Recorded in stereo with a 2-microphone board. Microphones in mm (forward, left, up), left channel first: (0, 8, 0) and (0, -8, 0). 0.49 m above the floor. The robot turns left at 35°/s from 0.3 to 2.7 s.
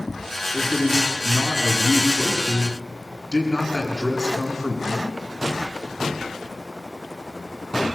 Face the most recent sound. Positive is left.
turn(degrees=45)